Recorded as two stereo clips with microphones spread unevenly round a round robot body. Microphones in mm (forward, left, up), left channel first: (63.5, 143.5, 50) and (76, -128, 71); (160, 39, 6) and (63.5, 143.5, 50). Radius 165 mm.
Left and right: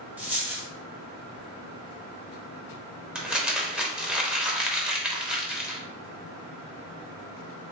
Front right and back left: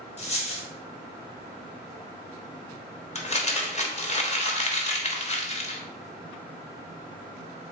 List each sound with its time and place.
0.2 s a dropped coin: 5° right, 1.5 m
3.1 s crumpling: straight ahead, 1.0 m